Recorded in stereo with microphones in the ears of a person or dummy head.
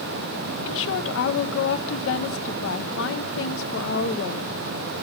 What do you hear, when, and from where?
0.7 s a woman speaking: 65° left (ahead or behind), 1.1 m